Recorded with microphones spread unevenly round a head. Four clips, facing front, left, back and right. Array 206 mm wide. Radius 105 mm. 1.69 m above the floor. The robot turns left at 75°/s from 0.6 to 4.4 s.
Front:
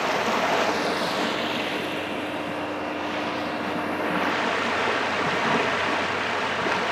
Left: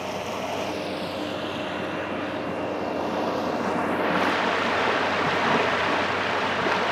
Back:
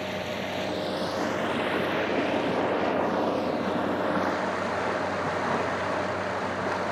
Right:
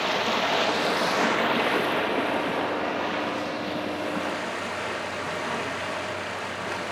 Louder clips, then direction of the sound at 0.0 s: Right 4 dB, front 8 dB; 20° right.